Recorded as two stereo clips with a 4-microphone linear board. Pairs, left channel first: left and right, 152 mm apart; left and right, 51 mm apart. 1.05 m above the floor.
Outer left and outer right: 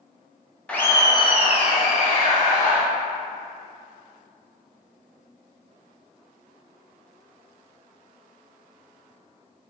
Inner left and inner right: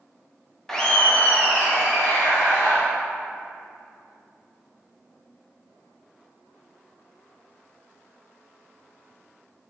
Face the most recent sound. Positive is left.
turn(degrees=60)  # may be behind; listen again after turning